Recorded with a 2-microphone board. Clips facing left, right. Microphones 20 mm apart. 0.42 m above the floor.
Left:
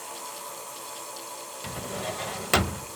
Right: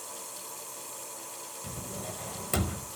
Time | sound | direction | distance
1.6 | a drawer | 50° left (ahead or behind) | 0.6 m